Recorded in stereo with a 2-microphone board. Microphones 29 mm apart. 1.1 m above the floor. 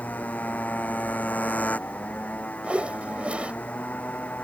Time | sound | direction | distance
0.0 | a motorcycle | 65° left (ahead or behind) | ?
2.6 | a whoosh | 40° right (ahead or behind) | ?